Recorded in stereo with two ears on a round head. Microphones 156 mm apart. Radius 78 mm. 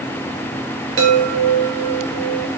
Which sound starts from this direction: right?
A chime, at 1.0 s.